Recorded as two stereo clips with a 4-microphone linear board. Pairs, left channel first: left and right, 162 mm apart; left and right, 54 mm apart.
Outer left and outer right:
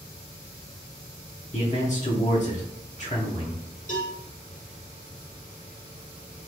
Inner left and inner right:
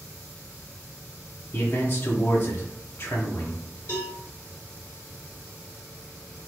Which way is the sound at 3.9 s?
50° left (ahead or behind).